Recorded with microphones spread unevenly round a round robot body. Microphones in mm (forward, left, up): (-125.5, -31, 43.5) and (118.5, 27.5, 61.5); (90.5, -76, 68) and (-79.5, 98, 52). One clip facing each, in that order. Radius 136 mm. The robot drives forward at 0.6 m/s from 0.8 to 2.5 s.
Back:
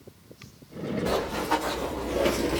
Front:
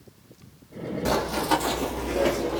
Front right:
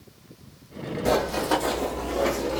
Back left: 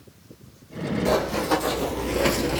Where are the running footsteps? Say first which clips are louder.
Front 4 dB, even; 40° left, 1.5 m; by 2.6 s 150° left, 0.6 m.